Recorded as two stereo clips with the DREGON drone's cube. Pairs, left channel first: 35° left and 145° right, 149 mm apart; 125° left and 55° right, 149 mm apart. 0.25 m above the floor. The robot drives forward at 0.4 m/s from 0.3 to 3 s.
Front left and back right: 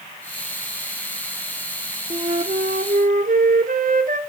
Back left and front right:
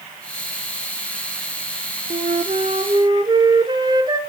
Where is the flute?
95° right, 0.8 m; by 4.2 s 115° right, 0.9 m.